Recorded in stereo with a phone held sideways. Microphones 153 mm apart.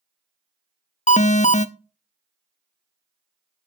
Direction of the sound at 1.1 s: 50° left (ahead or behind).